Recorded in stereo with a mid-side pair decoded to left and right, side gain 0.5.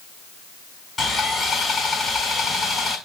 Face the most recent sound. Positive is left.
turn(degrees=35)